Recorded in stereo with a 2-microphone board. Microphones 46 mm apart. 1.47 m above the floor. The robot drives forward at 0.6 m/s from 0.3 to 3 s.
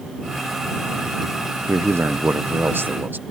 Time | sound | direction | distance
1.7 | a man speaking | 80° right | ?